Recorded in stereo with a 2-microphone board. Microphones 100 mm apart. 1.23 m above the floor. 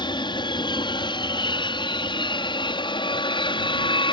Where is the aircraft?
50° left (ahead or behind); by 4.1 s 55° left (ahead or behind).